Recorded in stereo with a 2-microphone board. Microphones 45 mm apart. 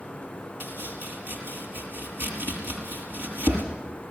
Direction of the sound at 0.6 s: 55° right (ahead or behind).